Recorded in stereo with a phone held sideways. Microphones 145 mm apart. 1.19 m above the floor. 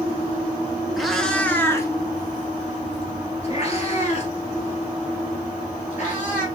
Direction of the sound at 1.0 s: Centre (ahead or behind).